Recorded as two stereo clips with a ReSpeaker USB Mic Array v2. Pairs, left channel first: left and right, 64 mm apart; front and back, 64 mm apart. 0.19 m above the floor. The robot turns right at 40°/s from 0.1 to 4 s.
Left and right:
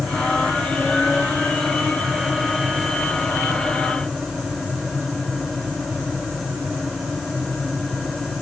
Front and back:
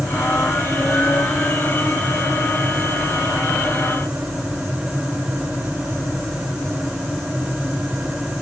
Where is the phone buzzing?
No phone buzzing in this recording.